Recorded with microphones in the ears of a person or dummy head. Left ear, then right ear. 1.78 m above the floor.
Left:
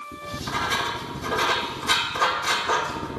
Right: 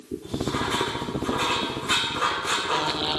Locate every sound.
0.2 s writing: 75° left (ahead or behind), 2.5 m